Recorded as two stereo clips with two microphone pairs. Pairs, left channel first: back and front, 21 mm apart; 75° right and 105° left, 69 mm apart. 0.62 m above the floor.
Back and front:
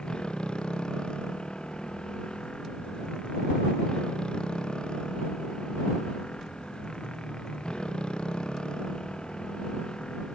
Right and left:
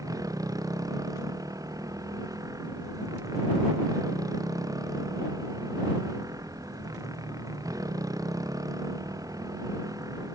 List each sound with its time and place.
0.0 s a motorcycle: 135° left